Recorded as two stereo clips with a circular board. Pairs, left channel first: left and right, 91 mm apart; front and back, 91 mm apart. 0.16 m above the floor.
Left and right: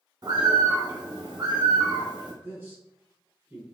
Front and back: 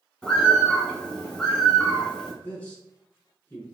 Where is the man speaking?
50° right, 1.3 m.